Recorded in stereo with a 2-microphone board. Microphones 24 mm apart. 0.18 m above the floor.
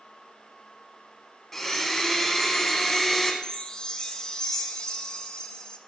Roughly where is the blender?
Centre.